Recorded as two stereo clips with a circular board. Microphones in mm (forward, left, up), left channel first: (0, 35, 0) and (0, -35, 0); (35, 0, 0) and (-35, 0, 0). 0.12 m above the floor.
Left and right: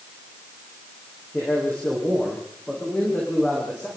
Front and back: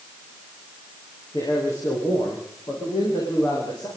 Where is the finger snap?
No finger snap in this recording.